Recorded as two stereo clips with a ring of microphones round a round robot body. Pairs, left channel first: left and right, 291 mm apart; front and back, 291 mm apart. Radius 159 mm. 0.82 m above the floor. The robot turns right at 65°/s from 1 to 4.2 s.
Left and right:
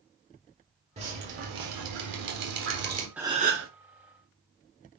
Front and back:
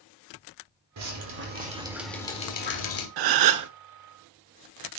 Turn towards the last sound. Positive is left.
turn(degrees=-110)